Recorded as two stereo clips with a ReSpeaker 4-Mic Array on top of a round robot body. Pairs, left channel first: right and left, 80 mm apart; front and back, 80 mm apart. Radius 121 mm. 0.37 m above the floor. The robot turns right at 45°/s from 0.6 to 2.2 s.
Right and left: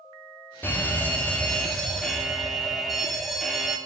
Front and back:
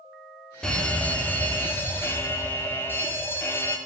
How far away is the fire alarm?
About 2.5 m.